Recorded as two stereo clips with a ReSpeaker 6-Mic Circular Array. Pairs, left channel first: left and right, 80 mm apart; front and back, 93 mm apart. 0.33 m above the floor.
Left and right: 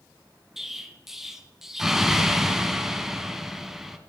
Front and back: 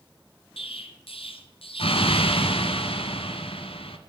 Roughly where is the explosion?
Ahead.